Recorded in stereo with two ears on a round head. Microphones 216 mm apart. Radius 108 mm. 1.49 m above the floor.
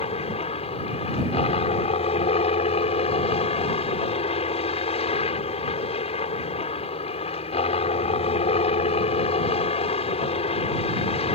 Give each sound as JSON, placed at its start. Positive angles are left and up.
{"t": 0.0, "sound": "a helicopter", "side_deg": 25}